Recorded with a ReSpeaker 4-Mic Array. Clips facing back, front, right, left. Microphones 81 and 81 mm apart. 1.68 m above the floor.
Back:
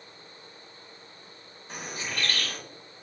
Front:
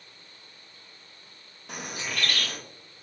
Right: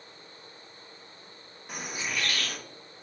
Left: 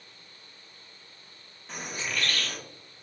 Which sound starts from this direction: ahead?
A bird, at 1.7 s.